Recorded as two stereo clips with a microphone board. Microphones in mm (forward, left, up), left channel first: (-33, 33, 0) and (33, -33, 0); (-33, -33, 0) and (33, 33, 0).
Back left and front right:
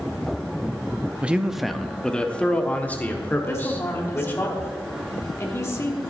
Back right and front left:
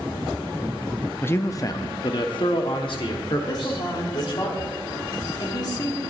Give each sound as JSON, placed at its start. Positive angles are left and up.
{"t": 1.2, "sound": "a man speaking", "azimuth_deg": -100, "distance_m": 0.5}
{"t": 3.5, "sound": "a woman speaking", "azimuth_deg": -170, "distance_m": 1.5}